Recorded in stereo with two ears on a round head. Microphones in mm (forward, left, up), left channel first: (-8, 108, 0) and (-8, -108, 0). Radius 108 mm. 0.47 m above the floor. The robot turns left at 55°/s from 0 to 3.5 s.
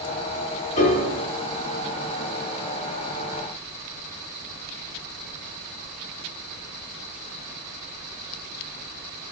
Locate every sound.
0.8 s a piano: 30° left (ahead or behind), 0.9 m; by 1.1 s 35° left (ahead or behind), 0.9 m